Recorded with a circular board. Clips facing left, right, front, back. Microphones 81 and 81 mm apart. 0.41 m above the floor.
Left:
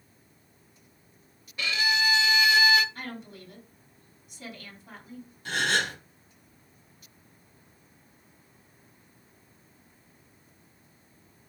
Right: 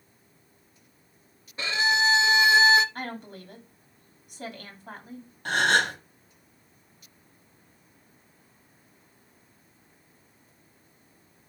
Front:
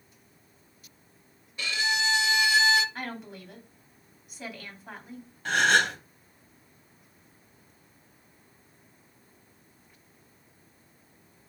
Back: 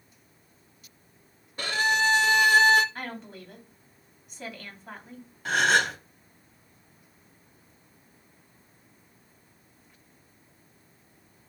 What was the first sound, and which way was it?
A violin, 145° right.